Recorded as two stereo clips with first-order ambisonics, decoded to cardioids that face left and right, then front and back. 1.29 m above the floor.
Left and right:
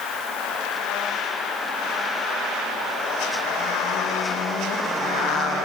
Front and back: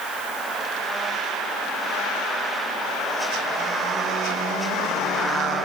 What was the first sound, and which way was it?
Only background noise.